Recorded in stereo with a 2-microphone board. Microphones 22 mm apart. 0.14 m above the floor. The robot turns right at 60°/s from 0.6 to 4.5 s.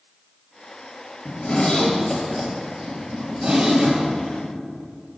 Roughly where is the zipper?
Left.